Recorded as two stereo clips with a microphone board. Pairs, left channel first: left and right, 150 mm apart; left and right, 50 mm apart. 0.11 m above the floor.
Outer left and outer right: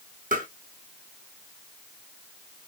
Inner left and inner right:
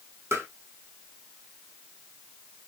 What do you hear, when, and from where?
0.3 s tapping: 65° right (ahead or behind), 1.7 m